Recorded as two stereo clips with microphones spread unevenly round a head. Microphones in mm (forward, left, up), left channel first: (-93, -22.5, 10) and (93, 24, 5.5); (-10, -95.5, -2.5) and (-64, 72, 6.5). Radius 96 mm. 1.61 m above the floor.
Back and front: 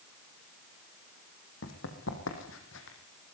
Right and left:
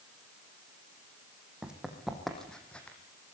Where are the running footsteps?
170° right, 4.5 m; by 3.0 s 155° right, 5 m.